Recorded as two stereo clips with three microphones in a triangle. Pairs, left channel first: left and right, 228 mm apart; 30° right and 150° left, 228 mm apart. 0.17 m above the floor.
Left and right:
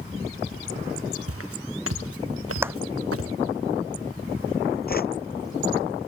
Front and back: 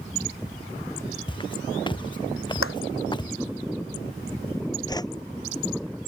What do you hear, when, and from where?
1.3 s footsteps: 100° right
2.6 s a clap: 10° right
4.9 s a whoosh: 45° left